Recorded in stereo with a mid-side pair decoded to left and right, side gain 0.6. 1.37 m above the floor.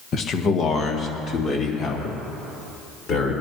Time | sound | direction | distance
0.1 | a man speaking | 45° left | 1.2 m